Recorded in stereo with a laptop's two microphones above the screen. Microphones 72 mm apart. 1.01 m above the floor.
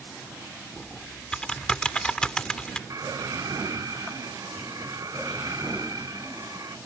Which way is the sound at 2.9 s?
60° right (ahead or behind).